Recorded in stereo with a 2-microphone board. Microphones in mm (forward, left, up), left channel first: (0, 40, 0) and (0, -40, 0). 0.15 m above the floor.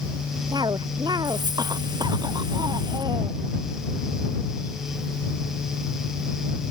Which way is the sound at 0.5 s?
60° right (ahead or behind).